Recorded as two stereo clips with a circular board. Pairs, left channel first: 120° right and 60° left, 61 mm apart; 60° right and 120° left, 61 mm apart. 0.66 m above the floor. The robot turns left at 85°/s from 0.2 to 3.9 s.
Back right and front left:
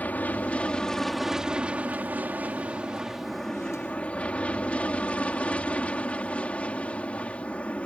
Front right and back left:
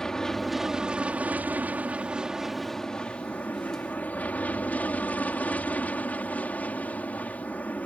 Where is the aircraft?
125° right; by 7.9 s 80° right.